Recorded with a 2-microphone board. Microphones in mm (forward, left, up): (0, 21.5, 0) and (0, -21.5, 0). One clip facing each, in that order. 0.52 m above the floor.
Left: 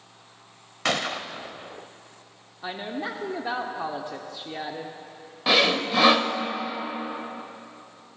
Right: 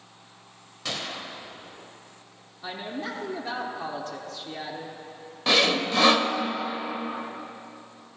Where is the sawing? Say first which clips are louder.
Left 1 dB; 10° left (ahead or behind), 0.7 m.